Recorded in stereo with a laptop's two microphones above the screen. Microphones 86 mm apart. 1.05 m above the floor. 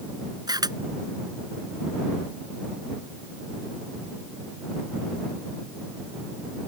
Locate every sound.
0.5 s a camera shutter: 55° right (ahead or behind)